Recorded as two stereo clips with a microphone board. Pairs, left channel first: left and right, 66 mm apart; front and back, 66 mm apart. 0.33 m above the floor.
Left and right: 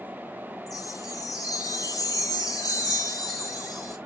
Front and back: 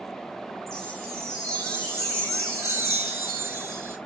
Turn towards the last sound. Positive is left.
turn(degrees=125)